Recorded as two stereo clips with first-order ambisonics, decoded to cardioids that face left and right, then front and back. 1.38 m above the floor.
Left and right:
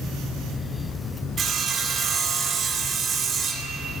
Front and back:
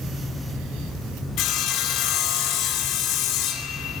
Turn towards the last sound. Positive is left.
turn(degrees=-30)